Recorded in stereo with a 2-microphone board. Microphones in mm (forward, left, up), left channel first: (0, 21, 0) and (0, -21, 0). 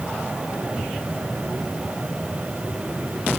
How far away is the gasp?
No gasp in this recording.